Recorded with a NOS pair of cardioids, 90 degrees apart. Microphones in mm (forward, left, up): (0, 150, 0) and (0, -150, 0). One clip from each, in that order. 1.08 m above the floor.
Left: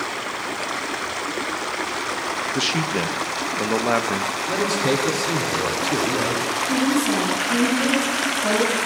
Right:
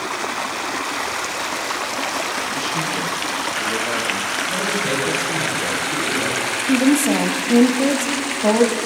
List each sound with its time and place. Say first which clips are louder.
2.5 s a man speaking: even; 40° left, 0.7 m
4.5 s a man speaking: even; 60° left, 2 m
6.7 s a woman speaking: right 6 dB; 60° right, 1.5 m